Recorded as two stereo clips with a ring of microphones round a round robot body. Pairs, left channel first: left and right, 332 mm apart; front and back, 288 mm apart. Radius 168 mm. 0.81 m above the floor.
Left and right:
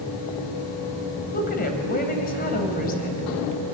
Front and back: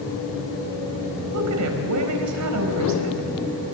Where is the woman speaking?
155° left, 4.5 m.